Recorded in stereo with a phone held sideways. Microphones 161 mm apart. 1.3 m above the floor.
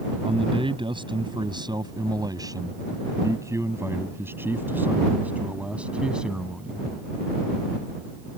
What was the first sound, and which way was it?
A man speaking, 35° right (ahead or behind).